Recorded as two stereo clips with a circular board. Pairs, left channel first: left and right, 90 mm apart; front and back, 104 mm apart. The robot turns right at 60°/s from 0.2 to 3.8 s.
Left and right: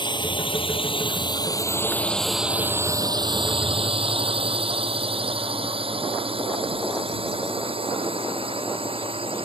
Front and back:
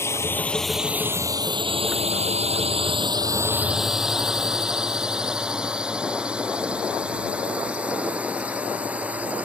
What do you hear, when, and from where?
0.0 s a drone: 65° left; by 9.4 s 105° right